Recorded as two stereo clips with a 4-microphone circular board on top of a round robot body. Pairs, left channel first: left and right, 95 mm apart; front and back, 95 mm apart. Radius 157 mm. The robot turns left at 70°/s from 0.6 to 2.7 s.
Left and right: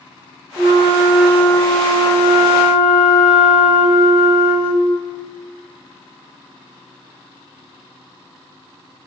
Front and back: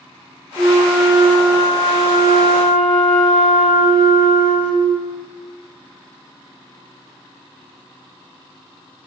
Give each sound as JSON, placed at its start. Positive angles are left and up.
{"t": 0.6, "sound": "a flute", "azimuth_deg": -135, "distance_m": 2.0}